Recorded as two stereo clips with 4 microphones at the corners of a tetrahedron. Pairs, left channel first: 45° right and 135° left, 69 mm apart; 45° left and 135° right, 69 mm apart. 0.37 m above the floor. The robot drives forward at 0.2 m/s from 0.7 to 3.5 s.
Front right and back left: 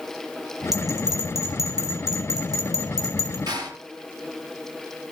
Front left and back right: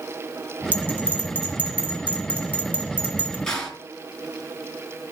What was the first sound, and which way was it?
A bell, 105° left.